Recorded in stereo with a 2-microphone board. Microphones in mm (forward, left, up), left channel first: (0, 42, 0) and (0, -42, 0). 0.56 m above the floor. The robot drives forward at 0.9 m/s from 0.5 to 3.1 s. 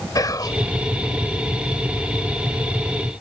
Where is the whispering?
50° left (ahead or behind).